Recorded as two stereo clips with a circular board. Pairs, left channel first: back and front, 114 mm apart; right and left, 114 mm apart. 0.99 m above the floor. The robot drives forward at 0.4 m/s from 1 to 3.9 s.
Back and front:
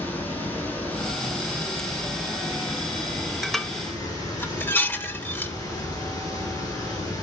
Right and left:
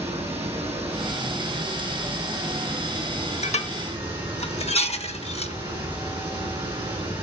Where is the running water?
110° left, 4 m; by 7.2 s 125° left, 4.5 m.